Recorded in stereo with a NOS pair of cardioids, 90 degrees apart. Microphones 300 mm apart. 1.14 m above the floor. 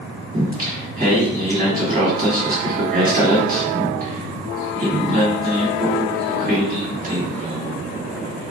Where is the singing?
30° right, 1.4 m.